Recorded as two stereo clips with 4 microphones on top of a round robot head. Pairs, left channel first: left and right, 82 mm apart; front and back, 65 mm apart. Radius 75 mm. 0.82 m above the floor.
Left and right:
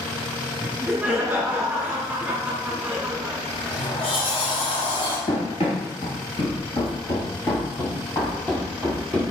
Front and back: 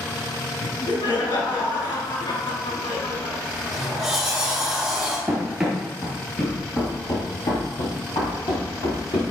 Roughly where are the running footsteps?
Left.